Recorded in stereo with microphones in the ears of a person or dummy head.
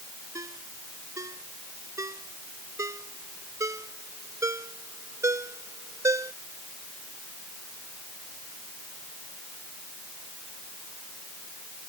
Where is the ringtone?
20° right (ahead or behind).